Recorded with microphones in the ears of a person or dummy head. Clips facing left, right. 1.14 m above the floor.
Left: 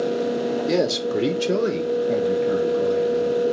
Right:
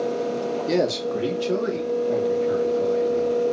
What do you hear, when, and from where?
0.7 s a man speaking: 5° right (ahead or behind), 0.6 m; by 3.4 s 40° left (ahead or behind), 2.5 m